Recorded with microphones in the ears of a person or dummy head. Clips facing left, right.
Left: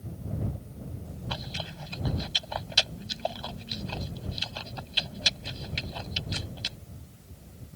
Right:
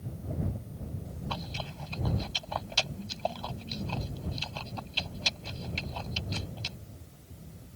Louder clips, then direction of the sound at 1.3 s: Left 1 dB; 15° left (ahead or behind).